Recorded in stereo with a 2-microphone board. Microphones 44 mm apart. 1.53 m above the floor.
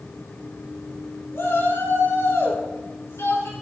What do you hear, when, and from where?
1.3 s a shout: 65° left (ahead or behind), 5 m; by 3.5 s 85° left, 5.5 m